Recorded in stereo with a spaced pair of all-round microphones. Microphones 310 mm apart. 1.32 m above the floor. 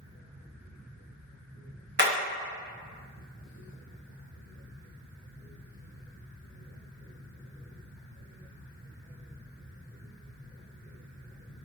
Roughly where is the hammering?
Right.